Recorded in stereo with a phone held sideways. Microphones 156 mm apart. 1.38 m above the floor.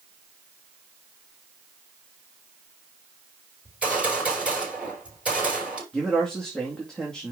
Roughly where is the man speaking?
Centre.